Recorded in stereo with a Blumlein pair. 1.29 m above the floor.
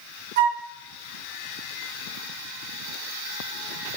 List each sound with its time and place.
0.4 s a flute: 55° right, 0.9 m